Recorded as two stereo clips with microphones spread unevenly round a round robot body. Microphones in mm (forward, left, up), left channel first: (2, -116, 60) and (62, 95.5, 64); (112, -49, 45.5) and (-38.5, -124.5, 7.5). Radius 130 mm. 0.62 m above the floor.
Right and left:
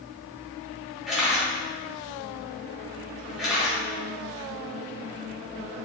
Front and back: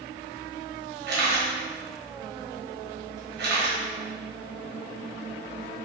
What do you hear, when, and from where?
1.1 s a camera shutter: 165° left, 1.2 m